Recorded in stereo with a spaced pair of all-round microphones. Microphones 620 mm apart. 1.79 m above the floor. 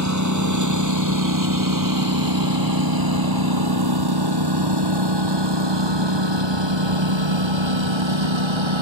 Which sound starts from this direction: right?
A lawn mower, at 0.0 s.